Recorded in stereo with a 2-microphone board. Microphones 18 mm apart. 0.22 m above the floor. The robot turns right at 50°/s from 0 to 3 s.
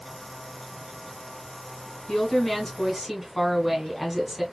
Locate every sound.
2.1 s a woman speaking: 140° left, 1.8 m; by 4.4 s 175° right, 1.8 m